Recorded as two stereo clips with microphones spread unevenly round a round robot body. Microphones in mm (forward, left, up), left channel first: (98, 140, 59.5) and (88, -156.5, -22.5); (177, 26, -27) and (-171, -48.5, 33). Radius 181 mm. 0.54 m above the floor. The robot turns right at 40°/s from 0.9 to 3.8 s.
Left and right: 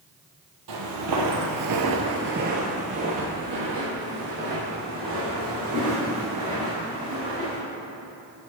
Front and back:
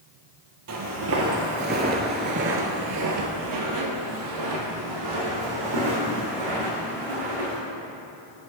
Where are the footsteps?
130° right, 1.0 m; by 7.6 s 170° right, 3 m.